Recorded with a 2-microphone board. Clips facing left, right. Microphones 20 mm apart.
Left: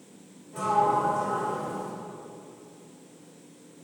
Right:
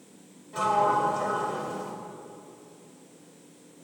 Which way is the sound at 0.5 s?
60° right (ahead or behind).